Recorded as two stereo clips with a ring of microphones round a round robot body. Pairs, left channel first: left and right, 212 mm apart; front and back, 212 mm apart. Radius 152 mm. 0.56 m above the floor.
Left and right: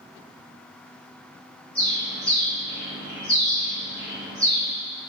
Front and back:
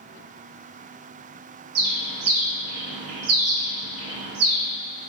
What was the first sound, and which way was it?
A bird, 175° left.